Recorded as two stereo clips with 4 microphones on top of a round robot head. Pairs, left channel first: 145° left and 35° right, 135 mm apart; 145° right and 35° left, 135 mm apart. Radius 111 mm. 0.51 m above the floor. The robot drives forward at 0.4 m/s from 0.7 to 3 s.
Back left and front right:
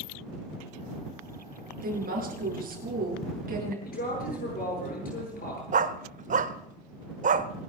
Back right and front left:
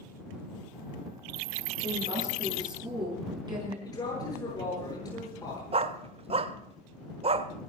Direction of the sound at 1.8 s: 20° right.